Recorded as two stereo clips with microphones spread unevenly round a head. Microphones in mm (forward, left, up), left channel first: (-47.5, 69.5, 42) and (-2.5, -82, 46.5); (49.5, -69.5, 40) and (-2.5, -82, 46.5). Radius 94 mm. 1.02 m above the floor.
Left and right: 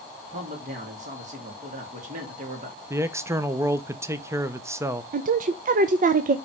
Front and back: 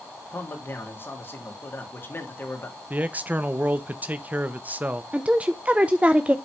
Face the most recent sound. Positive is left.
turn(degrees=-100)